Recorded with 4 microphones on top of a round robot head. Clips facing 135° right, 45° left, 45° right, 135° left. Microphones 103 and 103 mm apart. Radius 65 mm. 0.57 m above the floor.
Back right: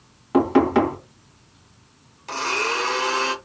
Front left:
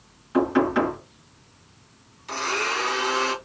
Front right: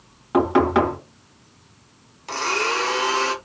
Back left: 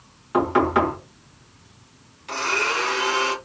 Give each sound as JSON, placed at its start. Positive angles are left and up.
{"t": 0.3, "sound": "knocking", "azimuth_deg": -110, "distance_m": 2.0}
{"t": 2.3, "sound": "a blender", "azimuth_deg": -95, "distance_m": 1.5}